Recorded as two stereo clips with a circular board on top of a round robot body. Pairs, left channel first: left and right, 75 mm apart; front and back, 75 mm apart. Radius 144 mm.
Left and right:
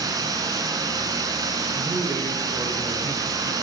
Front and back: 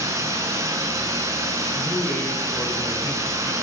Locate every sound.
0.0 s running water: 130° right, 6.5 m
1.8 s a man speaking: 80° right, 7.5 m